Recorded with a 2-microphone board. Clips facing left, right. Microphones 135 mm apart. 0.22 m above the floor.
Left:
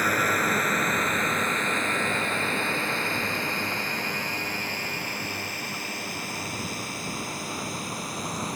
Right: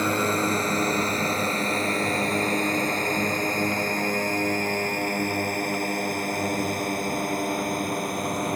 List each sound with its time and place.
0.0 s a drone: 25° right (ahead or behind); by 8.6 s 60° right (ahead or behind)